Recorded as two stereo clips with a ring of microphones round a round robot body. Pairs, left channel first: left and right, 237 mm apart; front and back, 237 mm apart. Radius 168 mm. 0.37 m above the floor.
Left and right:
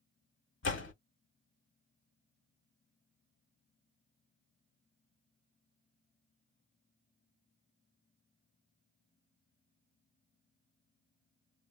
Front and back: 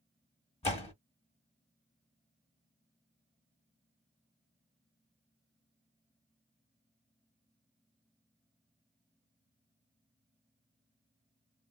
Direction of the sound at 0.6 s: 60° left.